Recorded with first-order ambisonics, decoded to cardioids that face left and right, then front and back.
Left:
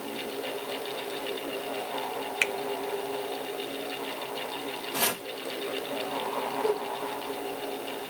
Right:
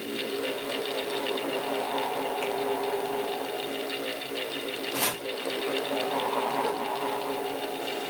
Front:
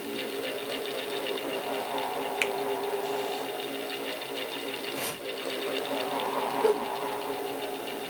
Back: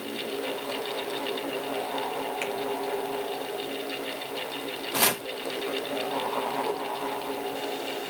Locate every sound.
2.4 s a finger snap: 70° left, 0.8 m
4.9 s chopping: 175° left, 1.0 m
6.6 s a whoosh: 35° right, 2.5 m